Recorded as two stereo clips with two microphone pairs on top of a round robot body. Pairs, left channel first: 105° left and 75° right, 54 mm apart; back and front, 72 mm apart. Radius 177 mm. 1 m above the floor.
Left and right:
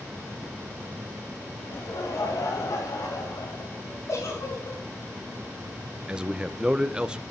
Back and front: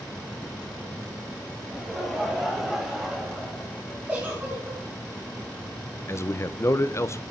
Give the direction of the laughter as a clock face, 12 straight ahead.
9 o'clock.